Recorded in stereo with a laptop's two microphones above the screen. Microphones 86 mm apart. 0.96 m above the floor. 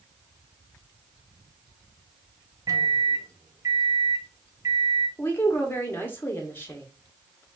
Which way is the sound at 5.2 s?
25° left (ahead or behind).